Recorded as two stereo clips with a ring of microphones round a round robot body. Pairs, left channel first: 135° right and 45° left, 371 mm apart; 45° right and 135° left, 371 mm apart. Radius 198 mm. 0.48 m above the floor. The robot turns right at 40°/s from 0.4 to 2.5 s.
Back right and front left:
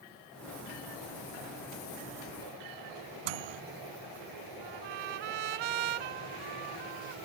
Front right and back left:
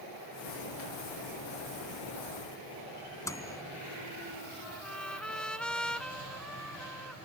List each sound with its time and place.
3.2 s a microwave: 35° left
4.6 s a trumpet: 45° left